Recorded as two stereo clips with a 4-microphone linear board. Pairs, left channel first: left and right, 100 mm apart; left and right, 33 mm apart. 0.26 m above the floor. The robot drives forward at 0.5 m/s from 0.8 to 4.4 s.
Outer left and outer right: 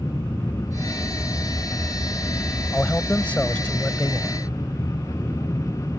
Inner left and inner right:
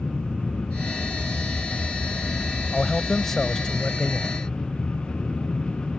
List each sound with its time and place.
0.0 s an aircraft: 15° left (ahead or behind)
2.7 s a man speaking: 15° left (ahead or behind); by 4.4 s 10° left (ahead or behind)